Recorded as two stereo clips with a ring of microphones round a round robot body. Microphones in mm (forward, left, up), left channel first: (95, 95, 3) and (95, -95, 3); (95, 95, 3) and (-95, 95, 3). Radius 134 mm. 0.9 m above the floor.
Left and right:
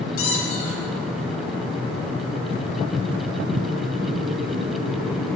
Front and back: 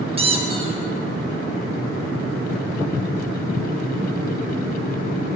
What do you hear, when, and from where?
0.2 s a squeak: 120° left, 1.1 m